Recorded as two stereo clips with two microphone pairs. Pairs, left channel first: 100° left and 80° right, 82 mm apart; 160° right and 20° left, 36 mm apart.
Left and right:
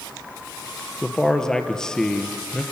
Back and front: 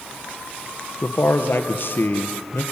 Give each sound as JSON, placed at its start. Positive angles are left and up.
{"t": 1.0, "sound": "a man speaking", "azimuth_deg": 180, "distance_m": 2.5}